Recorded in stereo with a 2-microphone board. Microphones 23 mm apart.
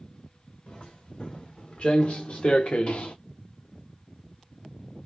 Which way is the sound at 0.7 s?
50° left (ahead or behind).